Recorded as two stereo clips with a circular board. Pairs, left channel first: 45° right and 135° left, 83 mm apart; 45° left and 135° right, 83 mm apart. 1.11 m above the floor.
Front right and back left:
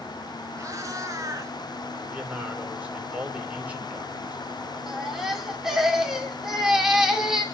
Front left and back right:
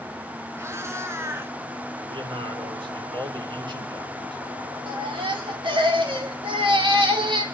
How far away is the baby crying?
About 2.5 m.